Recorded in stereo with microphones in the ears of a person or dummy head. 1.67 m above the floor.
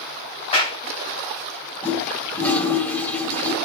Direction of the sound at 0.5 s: 40° left (ahead or behind).